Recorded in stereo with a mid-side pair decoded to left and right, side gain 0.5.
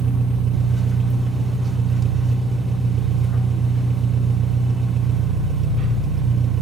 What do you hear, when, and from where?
0.0 s an engine running: 50° right, 1.7 m